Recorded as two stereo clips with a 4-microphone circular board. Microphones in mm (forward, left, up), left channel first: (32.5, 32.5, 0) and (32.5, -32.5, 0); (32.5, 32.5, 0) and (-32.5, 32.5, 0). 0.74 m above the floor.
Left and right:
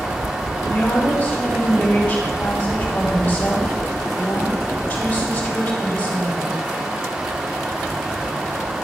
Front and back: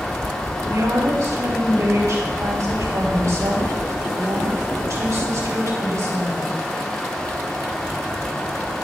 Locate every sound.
0.7 s a woman speaking: 155° left, 3.5 m